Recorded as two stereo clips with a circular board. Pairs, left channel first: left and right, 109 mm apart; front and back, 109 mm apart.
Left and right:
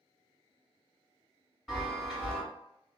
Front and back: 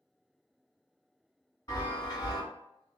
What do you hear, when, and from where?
1.7 s a chime: 5° left, 1.6 m